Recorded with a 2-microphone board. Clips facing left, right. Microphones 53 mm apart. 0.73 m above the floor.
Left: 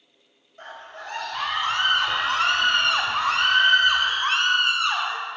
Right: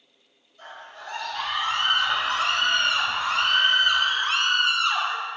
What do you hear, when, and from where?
0.6 s a scream: 50° left (ahead or behind), 4.5 m; by 5.2 s 20° left (ahead or behind), 2.5 m